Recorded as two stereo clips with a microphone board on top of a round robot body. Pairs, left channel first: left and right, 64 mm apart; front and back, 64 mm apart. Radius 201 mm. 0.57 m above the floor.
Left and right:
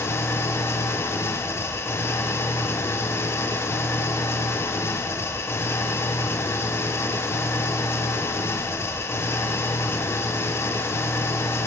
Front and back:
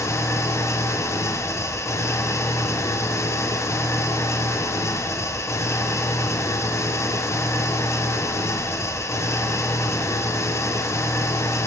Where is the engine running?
40° left, 1.5 m.